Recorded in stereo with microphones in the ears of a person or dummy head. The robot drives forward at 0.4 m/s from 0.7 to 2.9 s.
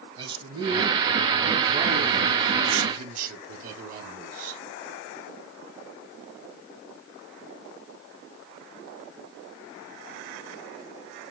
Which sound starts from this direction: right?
A man speaking, at 0.2 s.